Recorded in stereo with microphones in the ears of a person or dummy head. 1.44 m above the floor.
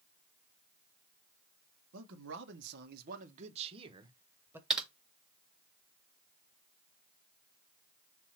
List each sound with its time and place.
1.9 s a man speaking: 80° right, 1.8 m; by 4.6 s 15° right (ahead or behind), 1.8 m
4.7 s typing on a keyboard: 10° right (ahead or behind), 1.5 m